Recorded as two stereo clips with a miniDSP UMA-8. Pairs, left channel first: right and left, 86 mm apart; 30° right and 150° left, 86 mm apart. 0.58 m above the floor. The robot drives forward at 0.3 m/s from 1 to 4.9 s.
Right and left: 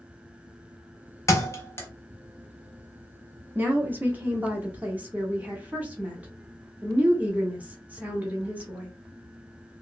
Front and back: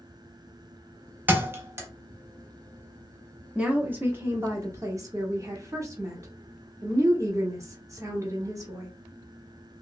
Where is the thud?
145° right, 0.6 m; by 1.9 s 150° right, 0.7 m.